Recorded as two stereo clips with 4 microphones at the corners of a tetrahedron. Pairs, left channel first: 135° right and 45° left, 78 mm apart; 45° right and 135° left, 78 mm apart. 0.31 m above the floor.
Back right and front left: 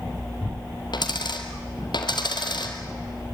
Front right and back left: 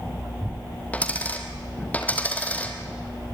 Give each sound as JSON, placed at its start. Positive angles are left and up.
{"t": 0.9, "sound": "a dropped coin", "azimuth_deg": -115, "distance_m": 2.5}